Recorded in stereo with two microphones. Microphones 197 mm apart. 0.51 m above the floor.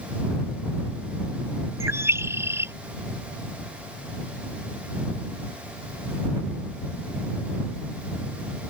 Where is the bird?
15° right (ahead or behind).